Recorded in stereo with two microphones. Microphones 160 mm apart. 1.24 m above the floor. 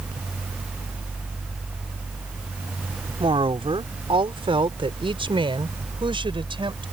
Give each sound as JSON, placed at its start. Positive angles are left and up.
{"t": 3.2, "sound": "a woman speaking", "side_deg": -35}